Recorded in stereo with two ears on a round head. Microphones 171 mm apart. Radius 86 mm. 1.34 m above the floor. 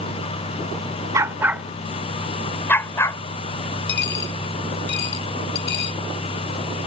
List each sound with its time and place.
1.1 s a dog barking: 15° right (ahead or behind); by 3.2 s 20° left (ahead or behind)
3.9 s a dropped coin: 65° left (ahead or behind)